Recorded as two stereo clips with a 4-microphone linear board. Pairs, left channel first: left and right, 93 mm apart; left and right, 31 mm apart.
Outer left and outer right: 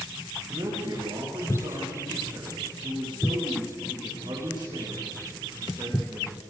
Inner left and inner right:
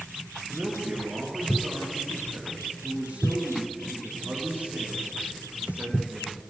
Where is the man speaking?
55° right (ahead or behind), 8.5 m.